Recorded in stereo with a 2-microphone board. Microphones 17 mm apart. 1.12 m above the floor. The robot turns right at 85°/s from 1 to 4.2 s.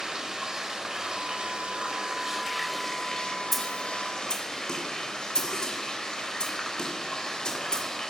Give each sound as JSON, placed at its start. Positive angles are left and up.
{"t": 0.0, "sound": "running water", "azimuth_deg": -140, "distance_m": 4.5}
{"t": 3.5, "sound": "a snare drum", "side_deg": -10, "distance_m": 3.0}